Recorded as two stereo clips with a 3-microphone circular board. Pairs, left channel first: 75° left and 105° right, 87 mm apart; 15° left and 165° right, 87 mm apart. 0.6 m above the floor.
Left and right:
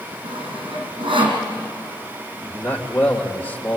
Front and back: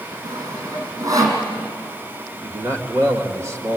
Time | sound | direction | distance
0.2 | sawing | 120° right | 5.5 m
2.4 | a man speaking | 140° left | 2 m